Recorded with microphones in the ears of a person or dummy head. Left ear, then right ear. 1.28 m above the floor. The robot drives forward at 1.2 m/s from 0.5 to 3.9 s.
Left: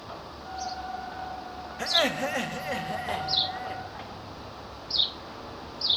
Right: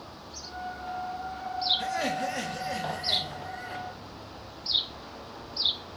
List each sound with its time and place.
1.8 s laughter: 40° left (ahead or behind), 1.6 m; by 3.8 s 15° left (ahead or behind), 4 m